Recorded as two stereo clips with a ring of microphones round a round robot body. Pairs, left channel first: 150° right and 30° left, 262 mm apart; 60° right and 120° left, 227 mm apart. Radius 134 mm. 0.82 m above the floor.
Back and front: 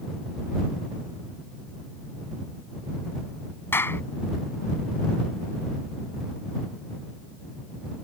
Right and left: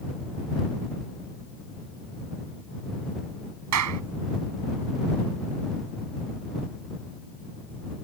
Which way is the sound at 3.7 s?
130° left.